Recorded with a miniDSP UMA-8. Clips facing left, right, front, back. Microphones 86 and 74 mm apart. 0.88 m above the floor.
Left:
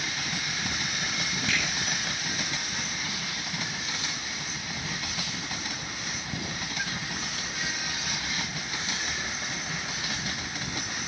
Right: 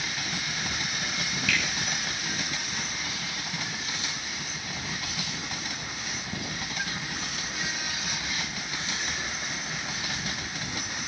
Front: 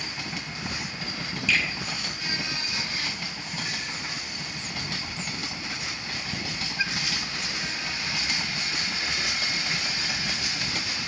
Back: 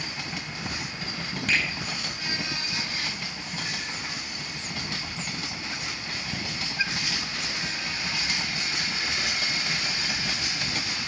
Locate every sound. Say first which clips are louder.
1.5 s a finger snap: right 1 dB, front 1 dB; 150° left, 4.5 m